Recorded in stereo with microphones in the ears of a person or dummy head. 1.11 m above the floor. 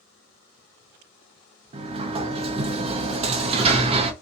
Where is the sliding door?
30° right (ahead or behind), 0.5 m.